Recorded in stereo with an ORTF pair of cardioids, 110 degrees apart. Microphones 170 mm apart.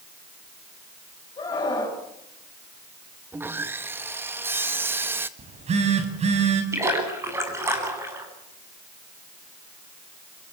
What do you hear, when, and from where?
1.4 s a scream: 25° left, 9.5 m
3.3 s sawing: 15° right, 1.6 m
5.4 s a phone buzzing: 40° right, 6.5 m
6.7 s a splash: 15° right, 9.5 m